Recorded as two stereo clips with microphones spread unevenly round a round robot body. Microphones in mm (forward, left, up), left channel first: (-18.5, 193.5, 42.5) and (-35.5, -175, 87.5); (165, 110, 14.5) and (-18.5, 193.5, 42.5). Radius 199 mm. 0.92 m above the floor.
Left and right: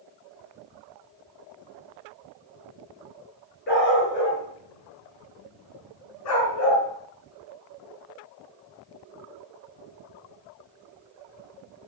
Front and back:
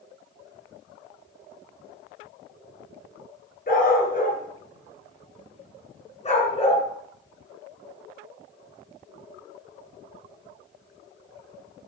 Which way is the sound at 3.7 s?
20° left.